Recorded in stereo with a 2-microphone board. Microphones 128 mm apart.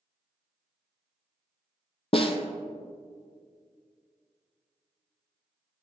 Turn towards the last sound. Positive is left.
turn(degrees=50)  # may be behind; listen again after turning